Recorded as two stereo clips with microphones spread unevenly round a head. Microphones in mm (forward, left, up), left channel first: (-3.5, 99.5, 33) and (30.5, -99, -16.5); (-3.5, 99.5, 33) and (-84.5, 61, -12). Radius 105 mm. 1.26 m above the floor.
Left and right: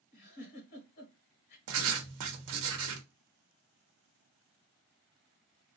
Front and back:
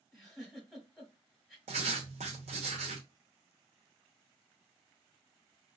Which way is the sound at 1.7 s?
110° right.